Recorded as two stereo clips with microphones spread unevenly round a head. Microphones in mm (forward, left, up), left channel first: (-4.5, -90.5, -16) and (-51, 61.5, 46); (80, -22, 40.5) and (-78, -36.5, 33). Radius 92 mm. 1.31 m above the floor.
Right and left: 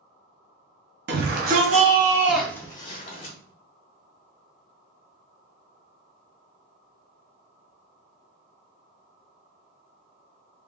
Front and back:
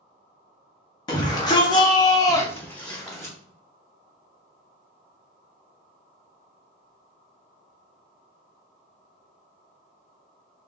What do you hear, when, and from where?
1.1 s a shout: 70° left, 0.8 m; by 3.4 s 85° right, 0.9 m